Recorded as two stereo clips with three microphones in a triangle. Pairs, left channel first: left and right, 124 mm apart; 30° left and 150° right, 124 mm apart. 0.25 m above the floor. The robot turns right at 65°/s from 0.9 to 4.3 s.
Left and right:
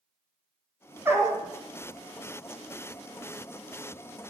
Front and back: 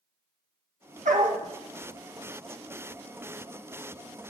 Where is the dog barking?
165° right, 2 m; by 1.4 s 140° right, 2 m.